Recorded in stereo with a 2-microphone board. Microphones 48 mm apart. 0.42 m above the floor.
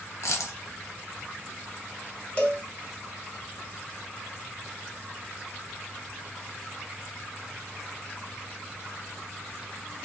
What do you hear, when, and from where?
0.2 s a dropped coin: 85° left, 0.8 m
2.4 s a cowbell: 30° left (ahead or behind), 1.2 m